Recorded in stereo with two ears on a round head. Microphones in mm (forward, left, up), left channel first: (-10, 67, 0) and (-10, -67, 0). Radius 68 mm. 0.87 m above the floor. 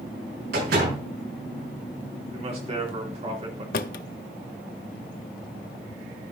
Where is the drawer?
60° left (ahead or behind), 0.6 m.